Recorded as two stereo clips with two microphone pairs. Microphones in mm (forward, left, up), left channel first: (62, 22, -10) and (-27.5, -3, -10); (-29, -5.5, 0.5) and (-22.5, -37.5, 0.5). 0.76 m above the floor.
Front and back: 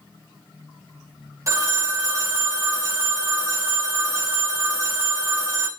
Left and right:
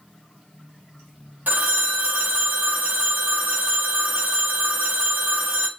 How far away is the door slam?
No door slam in this recording.